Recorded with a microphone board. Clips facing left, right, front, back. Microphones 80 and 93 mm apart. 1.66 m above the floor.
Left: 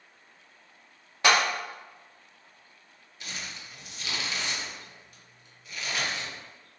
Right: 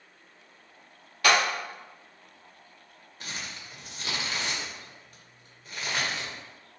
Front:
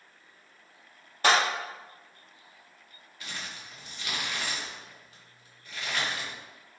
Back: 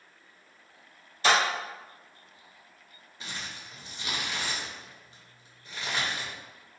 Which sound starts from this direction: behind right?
Crumpling, at 3.2 s.